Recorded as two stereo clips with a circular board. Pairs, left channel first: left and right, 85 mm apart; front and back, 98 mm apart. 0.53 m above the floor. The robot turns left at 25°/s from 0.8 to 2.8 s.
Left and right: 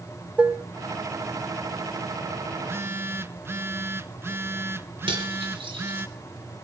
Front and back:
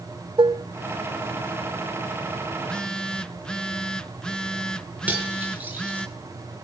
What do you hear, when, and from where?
0.4 s dishes clattering: 160° right, 1.0 m
2.5 s a phone buzzing: 70° right, 0.7 m; by 6.1 s 75° right, 0.7 m
5.1 s cutlery clinking: 105° right, 5 m